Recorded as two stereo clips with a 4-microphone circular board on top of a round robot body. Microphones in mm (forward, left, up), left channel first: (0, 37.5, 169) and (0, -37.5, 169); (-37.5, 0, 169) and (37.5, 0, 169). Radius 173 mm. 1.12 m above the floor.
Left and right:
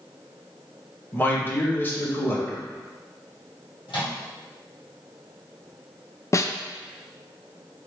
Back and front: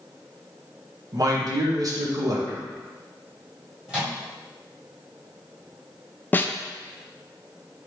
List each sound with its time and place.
1.1 s a man speaking: 25° left, 1.3 m
3.9 s a microwave: 80° left, 1.8 m
6.3 s a snare drum: 125° left, 0.5 m